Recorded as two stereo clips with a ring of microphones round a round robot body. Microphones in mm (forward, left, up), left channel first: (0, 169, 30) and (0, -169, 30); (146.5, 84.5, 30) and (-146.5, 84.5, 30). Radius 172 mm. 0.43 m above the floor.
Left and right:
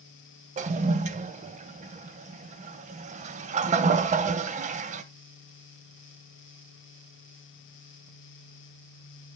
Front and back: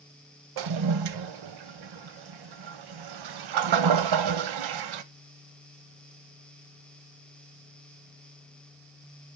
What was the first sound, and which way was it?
A toilet flushing, 160° right.